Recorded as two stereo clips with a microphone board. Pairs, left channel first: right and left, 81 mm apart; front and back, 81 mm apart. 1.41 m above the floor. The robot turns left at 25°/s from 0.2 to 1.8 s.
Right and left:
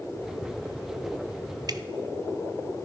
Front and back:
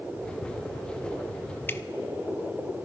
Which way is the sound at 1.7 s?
65° left.